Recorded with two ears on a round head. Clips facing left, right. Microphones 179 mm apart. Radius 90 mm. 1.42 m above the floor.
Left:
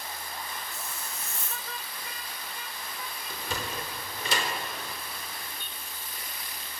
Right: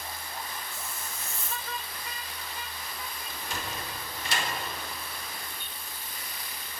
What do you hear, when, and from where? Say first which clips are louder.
0.7 s a hiss: even; 50° left (ahead or behind), 1.7 m
3.3 s a sliding door: left 3 dB; 70° left (ahead or behind), 4.5 m